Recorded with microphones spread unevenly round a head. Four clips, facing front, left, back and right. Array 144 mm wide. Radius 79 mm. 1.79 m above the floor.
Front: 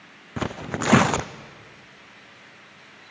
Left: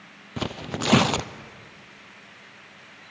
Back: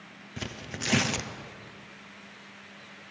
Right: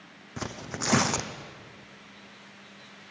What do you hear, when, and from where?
0.4 s tearing paper: 25° left, 0.7 m